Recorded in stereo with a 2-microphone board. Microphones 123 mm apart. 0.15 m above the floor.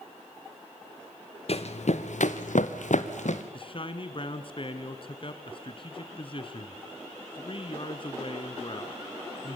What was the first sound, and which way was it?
Running footsteps, 55° left (ahead or behind).